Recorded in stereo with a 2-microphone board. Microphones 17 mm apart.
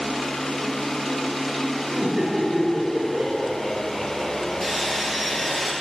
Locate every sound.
1.9 s laughter: 25° right (ahead or behind), 4.5 m; by 5.6 s 15° right (ahead or behind), 7.5 m
4.6 s sawing: 20° left (ahead or behind), 3.5 m